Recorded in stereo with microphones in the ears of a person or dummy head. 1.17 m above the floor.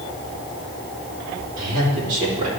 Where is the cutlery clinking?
No cutlery clinking in this recording.